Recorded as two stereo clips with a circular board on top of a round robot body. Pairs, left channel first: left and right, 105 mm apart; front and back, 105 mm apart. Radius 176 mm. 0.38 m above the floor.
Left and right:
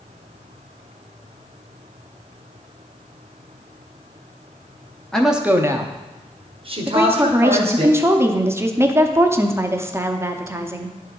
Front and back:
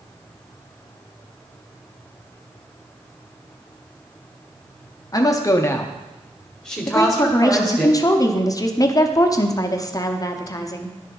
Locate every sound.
5.1 s a woman speaking: 10° left, 0.9 m; by 7.9 s 95° right, 2.5 m
6.9 s a woman speaking: 35° right, 0.9 m